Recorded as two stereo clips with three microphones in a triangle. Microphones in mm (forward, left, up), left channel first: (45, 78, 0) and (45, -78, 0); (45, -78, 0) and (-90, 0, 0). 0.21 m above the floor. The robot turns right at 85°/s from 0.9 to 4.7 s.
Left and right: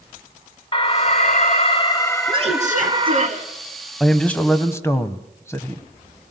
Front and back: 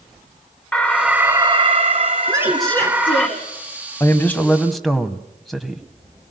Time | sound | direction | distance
0.7 | an alarm | 50° left | 1.6 m
2.3 | a woman speaking | 150° right | 3 m
4.0 | a man speaking | straight ahead | 1.1 m